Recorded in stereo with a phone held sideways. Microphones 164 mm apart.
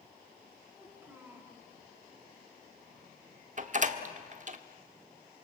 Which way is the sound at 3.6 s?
50° right (ahead or behind).